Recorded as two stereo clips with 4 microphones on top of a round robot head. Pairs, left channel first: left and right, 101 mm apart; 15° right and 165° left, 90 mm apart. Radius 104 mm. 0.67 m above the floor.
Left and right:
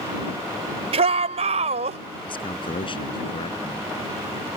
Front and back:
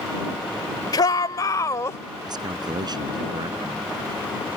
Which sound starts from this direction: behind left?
A man speaking, at 2.3 s.